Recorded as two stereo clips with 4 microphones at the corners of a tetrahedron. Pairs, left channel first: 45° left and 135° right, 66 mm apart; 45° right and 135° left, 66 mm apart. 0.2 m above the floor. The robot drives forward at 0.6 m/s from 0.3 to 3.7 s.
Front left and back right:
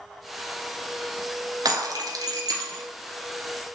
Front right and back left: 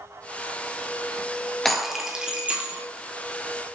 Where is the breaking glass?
130° right, 0.8 m; by 2.8 s 155° right, 1.4 m.